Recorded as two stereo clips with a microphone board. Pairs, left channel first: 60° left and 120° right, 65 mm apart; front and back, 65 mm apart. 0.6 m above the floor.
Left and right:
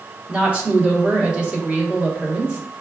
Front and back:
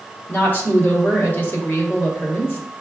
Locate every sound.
0.3 s a woman speaking: 50° right, 1.4 m